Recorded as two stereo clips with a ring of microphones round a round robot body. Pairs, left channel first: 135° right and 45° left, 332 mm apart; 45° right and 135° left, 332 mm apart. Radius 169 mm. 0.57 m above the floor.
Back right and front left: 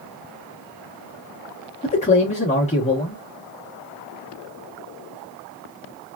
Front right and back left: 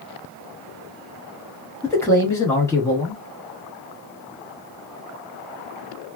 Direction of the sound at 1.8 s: 115° right.